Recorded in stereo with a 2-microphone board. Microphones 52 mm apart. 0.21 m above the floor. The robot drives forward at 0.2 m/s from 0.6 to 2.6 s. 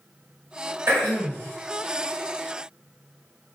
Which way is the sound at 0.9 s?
60° right (ahead or behind).